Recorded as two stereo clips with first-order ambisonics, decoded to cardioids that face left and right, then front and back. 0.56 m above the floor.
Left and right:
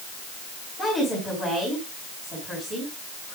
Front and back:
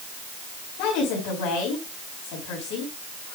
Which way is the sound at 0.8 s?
5° right.